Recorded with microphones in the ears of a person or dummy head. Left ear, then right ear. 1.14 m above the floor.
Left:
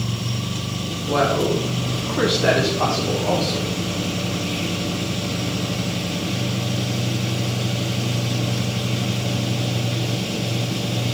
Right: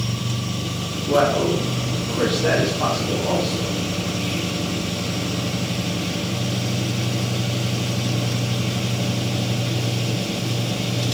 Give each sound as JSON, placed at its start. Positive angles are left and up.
{"t": 1.1, "sound": "a man speaking", "side_deg": -5, "distance_m": 1.1}